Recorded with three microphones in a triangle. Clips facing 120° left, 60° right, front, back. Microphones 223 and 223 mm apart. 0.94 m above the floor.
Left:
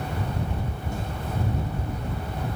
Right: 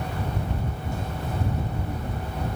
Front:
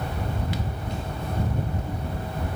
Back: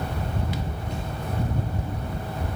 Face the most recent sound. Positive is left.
No sound to turn to.